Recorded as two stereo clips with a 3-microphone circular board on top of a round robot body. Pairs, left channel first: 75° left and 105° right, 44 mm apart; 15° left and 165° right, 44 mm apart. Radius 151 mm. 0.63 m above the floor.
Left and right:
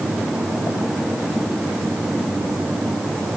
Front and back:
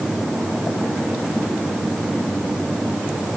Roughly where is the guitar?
No guitar in this recording.